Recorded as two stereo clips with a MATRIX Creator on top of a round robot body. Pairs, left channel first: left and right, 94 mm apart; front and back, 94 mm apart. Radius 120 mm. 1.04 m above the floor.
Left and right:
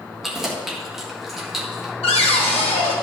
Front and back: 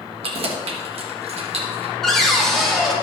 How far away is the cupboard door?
About 2 m.